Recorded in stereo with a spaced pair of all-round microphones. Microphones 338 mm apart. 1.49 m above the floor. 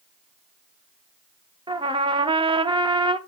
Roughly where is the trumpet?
Centre.